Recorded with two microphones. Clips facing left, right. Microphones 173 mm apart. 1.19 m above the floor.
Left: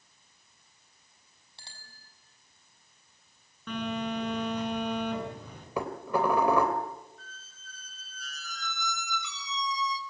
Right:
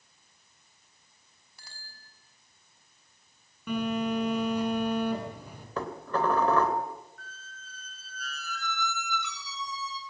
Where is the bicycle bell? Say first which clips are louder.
Even; 30° left (ahead or behind), 6 m.